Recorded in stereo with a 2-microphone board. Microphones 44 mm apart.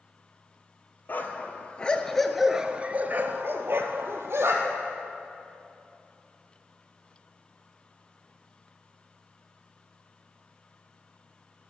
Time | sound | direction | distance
1.1 | a dog barking | 45° left (ahead or behind) | 1.2 m